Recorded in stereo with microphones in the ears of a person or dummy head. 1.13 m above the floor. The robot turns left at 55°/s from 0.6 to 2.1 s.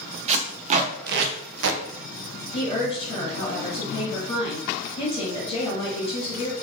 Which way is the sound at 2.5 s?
25° left (ahead or behind).